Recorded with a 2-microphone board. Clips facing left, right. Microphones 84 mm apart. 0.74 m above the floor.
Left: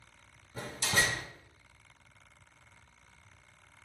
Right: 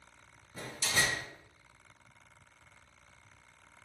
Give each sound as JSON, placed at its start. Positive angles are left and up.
{"t": 0.6, "sound": "a door slam", "side_deg": 55, "distance_m": 0.7}